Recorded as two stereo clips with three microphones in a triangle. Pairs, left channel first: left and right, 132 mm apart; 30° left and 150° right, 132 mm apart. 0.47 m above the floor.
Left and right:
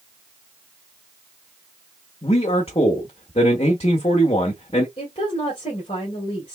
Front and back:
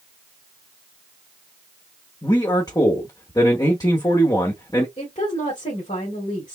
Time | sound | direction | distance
2.2 | a man speaking | 80° left | 1.0 m
5.0 | a woman speaking | 55° left | 2.0 m